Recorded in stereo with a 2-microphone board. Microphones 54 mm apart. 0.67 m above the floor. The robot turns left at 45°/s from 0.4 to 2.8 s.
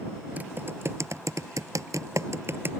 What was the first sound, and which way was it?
Typing on a keyboard, 30° right (ahead or behind).